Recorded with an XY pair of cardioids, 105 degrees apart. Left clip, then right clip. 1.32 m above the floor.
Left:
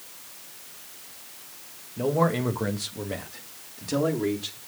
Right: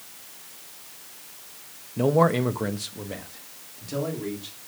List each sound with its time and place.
2.0 s a man speaking: 40° right, 1.4 m; by 4.6 s 40° left, 3.5 m